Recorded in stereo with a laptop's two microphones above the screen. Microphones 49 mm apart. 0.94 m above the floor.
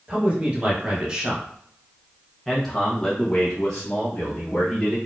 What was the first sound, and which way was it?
A man speaking, 25° right (ahead or behind).